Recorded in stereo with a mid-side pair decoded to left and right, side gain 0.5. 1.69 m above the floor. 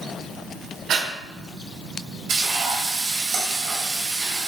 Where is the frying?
60° right, 1.0 m.